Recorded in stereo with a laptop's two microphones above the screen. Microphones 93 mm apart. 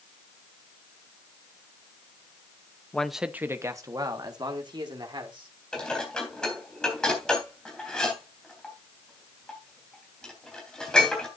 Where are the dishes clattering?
10° left (ahead or behind), 3.5 m.